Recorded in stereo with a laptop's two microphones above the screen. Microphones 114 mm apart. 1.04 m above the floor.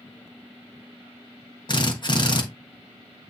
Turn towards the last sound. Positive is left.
turn(degrees=40)  # may be behind; listen again after turning